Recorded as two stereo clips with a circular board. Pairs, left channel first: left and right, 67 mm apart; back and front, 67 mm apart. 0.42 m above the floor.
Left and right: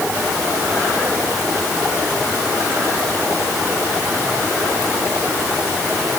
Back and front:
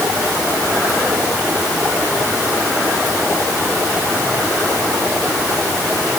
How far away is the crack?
No crack in this recording.